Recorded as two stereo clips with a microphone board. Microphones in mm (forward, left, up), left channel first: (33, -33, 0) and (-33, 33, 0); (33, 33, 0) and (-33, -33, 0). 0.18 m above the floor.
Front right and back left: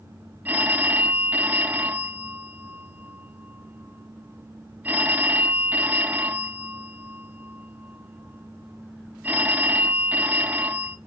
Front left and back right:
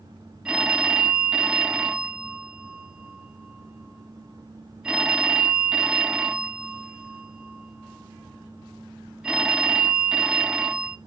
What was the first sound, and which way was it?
A phone ringing, 160° left.